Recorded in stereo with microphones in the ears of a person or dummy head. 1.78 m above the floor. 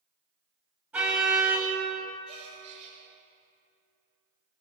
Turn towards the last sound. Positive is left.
turn(degrees=-35)  # may be behind; listen again after turning